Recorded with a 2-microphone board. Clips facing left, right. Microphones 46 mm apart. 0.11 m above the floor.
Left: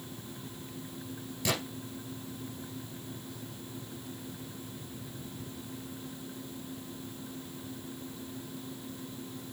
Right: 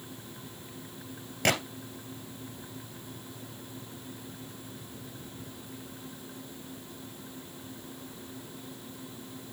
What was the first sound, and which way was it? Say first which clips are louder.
A gunshot: right 6 dB; 50° right (ahead or behind).